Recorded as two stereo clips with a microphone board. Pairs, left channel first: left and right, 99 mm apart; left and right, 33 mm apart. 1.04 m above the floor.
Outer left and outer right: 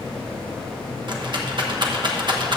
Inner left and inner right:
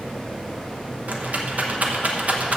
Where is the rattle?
50° right (ahead or behind), 1.1 m.